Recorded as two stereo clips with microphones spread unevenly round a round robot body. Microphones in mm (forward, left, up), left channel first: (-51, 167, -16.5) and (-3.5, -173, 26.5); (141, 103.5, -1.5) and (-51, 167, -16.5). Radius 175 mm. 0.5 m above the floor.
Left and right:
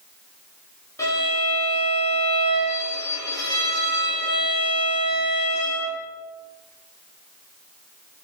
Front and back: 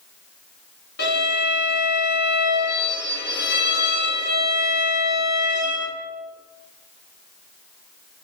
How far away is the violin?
About 1.8 m.